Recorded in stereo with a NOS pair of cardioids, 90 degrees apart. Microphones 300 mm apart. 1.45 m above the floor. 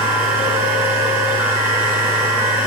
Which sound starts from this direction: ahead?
A machine running, at 0.0 s.